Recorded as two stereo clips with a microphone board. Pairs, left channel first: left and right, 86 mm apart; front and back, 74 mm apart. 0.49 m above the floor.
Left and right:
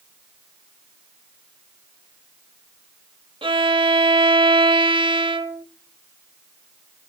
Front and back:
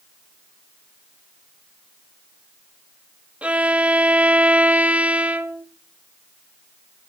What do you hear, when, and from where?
3.4 s a violin: 105° right, 0.8 m